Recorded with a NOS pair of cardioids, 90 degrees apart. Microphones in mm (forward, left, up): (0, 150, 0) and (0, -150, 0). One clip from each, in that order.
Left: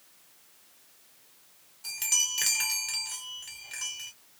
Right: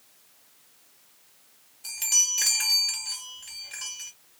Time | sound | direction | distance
1.8 | a chime | 5° left | 1.2 m